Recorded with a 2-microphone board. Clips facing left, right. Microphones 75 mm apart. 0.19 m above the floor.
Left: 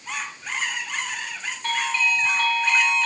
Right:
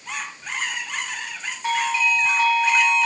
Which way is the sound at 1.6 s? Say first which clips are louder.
Right 3 dB; 10° right (ahead or behind).